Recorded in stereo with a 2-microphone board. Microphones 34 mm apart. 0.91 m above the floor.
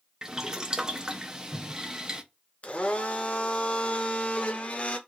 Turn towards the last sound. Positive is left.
turn(degrees=40)  # may be behind; listen again after turning